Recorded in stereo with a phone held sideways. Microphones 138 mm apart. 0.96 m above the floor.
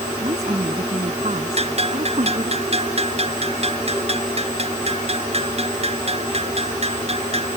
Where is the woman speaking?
50° right (ahead or behind); by 2.6 s 55° right (ahead or behind).